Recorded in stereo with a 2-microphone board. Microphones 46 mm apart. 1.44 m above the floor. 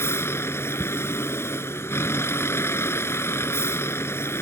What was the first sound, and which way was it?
A vehicle, 60° left (ahead or behind).